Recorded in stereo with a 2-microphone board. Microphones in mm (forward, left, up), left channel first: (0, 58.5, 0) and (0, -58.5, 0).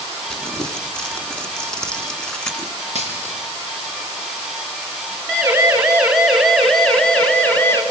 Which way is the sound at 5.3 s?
15° right (ahead or behind).